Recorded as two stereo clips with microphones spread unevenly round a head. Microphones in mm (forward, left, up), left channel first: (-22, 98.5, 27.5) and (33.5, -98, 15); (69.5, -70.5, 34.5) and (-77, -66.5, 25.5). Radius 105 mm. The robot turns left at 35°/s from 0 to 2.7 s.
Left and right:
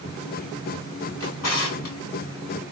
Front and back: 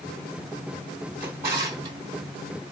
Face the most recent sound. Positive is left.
turn(degrees=85)